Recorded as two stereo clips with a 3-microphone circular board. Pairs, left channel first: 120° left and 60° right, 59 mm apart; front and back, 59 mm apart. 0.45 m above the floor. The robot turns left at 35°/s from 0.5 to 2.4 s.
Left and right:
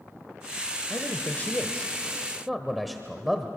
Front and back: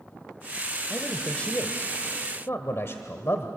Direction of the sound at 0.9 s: 80° left.